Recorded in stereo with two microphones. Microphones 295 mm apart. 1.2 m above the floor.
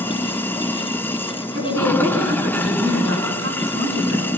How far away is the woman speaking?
About 10 m.